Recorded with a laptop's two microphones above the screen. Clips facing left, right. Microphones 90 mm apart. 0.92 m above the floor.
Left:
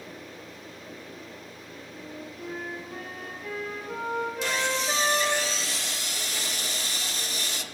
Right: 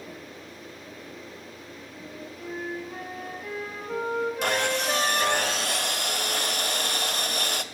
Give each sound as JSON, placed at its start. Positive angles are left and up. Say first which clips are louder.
{"t": 1.9, "sound": "a flute", "louder": "left 1 dB", "side_deg": -5, "distance_m": 1.8}
{"t": 4.4, "sound": "sawing", "louder": "right 3 dB", "side_deg": -60, "distance_m": 0.7}